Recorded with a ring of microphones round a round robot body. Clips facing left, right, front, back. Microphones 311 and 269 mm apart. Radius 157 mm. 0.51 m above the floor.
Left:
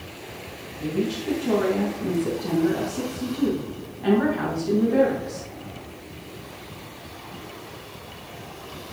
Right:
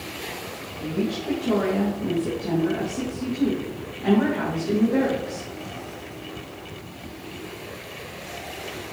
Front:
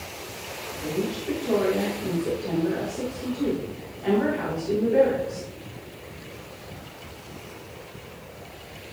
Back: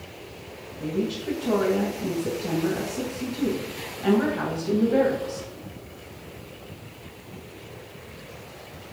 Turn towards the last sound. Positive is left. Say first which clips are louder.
# left 1 dB, back 1 dB
turn(degrees=170)